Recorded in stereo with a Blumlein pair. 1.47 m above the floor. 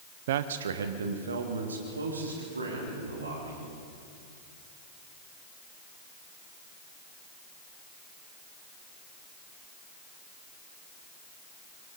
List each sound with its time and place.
0.3 s a man speaking: 55° right, 0.9 m; by 3.6 s 80° right, 5.5 m